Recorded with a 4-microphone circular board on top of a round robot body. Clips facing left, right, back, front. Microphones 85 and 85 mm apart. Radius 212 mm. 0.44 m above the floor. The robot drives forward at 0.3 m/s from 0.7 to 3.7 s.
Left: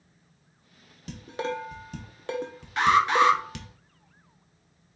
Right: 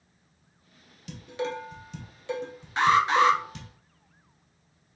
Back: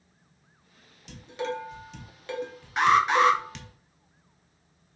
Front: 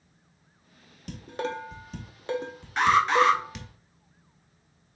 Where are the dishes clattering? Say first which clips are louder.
Left 1 dB, even; 40° left, 1.1 m; by 3.7 s 90° left, 0.8 m.